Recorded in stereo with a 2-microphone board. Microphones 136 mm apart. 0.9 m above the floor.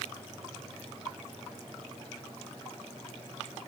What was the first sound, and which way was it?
Only background noise.